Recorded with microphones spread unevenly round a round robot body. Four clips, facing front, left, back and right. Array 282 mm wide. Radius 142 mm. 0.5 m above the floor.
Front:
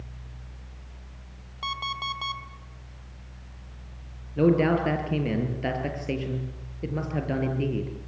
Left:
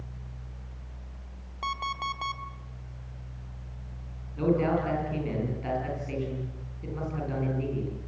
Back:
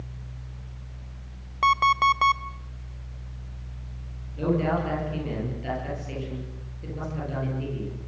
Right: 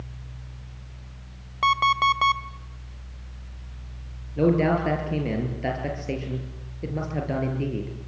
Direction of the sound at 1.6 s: 125° right.